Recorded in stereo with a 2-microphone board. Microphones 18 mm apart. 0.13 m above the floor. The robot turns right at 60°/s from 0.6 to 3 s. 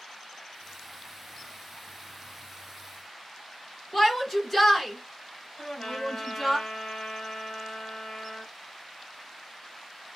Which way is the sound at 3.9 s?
20° left (ahead or behind).